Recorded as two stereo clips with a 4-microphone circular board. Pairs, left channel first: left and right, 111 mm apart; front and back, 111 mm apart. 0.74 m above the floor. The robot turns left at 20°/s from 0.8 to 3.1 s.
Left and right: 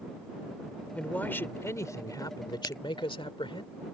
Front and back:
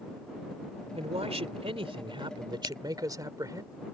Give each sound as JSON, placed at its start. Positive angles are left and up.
{"t": 0.9, "sound": "a man speaking", "azimuth_deg": 170}
{"t": 2.6, "sound": "a crack", "azimuth_deg": 25}